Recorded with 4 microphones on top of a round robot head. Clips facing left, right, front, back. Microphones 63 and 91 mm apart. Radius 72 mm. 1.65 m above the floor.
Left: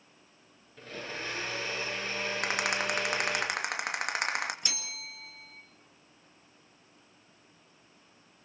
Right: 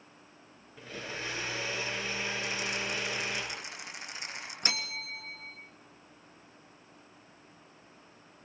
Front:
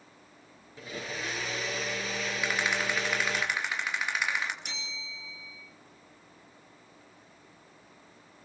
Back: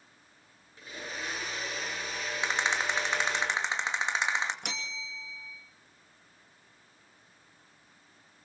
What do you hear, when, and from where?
0.8 s a blender: 5° right, 7 m
2.4 s a rattle: 115° left, 2.5 m
4.6 s a bell: 135° right, 2.5 m